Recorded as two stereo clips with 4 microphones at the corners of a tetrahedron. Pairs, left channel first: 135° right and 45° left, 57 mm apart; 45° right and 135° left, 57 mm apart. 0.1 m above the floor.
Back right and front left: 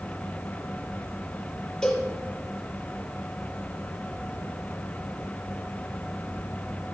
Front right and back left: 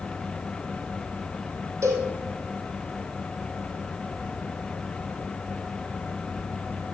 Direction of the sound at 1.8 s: 150° left.